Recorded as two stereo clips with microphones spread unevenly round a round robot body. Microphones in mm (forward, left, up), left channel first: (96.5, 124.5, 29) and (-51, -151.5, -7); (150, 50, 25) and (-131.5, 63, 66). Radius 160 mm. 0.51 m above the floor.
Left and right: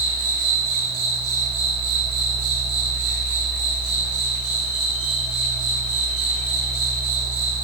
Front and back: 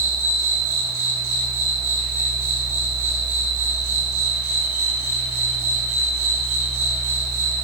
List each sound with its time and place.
0.0 s an insect: 155° right, 6 m